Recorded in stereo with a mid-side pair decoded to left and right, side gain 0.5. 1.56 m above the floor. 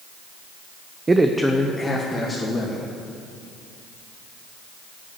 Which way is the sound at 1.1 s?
25° right.